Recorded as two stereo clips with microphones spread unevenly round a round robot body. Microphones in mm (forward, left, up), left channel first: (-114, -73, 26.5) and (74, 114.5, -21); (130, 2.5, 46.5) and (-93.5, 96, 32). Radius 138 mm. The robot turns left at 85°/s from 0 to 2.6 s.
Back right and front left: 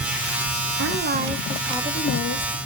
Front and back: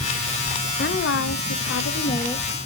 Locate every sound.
0.8 s a woman speaking: 30° left, 1.1 m; by 2.6 s 120° right, 1.1 m